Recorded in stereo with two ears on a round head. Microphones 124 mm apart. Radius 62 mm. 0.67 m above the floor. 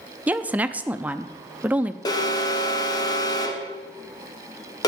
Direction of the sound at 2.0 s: 30° left (ahead or behind).